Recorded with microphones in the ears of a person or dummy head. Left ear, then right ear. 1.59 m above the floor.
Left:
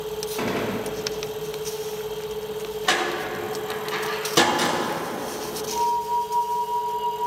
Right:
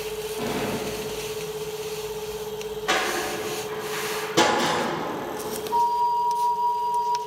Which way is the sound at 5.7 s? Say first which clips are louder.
Right 2 dB; 65° right (ahead or behind).